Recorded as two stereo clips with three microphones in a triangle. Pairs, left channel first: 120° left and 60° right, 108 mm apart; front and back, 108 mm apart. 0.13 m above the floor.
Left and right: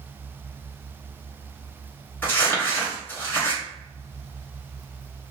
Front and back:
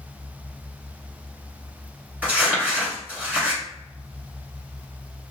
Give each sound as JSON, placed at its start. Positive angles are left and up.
{"t": 2.2, "sound": "crumpling", "azimuth_deg": 135, "distance_m": 1.0}